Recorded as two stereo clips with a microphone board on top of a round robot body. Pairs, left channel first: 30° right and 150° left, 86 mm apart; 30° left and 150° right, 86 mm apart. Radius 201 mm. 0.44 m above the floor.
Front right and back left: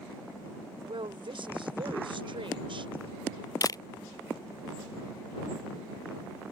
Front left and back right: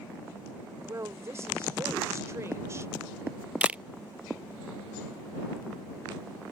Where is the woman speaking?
155° left.